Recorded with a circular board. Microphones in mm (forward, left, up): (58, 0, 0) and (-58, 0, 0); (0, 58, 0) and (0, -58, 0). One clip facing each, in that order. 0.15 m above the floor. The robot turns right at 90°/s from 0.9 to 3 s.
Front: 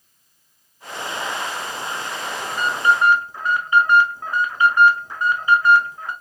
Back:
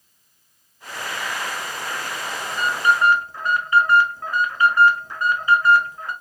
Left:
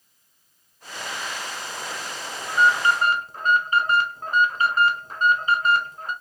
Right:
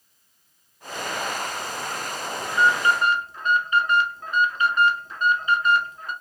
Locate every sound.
2.5 s an alarm: 15° left, 1.2 m; by 6.1 s 65° left, 1.2 m